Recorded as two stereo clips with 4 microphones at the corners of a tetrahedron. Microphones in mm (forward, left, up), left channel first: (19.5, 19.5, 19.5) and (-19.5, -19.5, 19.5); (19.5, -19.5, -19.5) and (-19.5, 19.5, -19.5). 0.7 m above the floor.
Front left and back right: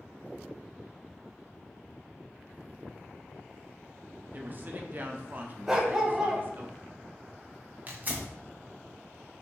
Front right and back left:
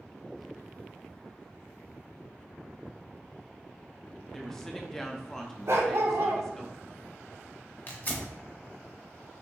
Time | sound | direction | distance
4.3 | a woman speaking | 120° right | 0.6 m
5.7 | a dog barking | 145° left | 0.9 m
7.9 | tearing paper | 90° right | 1.0 m